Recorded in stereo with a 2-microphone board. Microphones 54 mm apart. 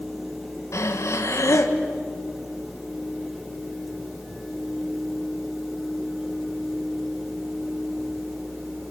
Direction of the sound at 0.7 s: 65° left (ahead or behind).